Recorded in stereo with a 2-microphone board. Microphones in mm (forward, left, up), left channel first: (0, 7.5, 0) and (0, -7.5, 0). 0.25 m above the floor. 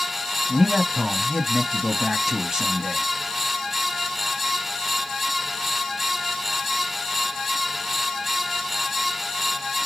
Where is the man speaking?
35° right (ahead or behind), 1.5 m.